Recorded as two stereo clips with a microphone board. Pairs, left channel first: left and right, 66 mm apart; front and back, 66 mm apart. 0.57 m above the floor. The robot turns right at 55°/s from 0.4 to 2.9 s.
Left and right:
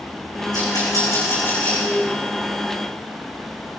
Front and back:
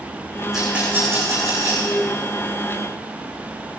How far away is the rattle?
About 7.5 m.